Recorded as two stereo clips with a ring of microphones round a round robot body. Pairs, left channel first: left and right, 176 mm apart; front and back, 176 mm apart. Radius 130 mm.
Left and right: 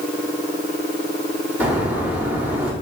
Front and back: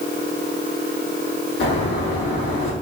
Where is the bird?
10° right, 1.4 m.